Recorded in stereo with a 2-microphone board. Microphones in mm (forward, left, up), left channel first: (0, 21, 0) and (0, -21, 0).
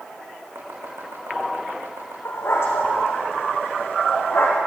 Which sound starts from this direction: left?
A dog barking, at 2.2 s.